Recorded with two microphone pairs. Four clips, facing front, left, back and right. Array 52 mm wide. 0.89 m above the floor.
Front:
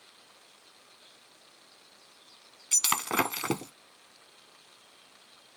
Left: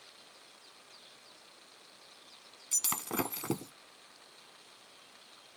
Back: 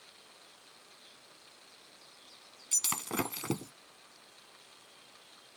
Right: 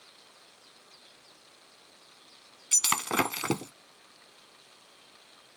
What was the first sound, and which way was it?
Breaking glass, 45° right.